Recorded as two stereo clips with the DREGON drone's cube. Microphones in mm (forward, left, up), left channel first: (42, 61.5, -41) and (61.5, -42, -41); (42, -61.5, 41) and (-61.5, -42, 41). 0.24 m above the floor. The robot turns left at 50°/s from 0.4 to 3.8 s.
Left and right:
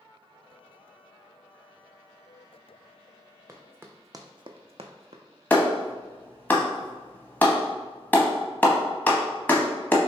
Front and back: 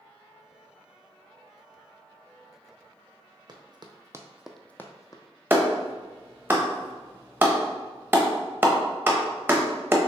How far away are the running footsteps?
About 0.7 m.